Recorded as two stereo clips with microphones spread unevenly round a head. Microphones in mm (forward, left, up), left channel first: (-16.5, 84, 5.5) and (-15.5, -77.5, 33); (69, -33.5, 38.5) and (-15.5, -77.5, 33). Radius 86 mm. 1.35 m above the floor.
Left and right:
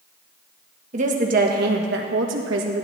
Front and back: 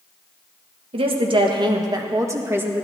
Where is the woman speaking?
135° right, 1.7 m; by 2.9 s 80° right, 1.8 m.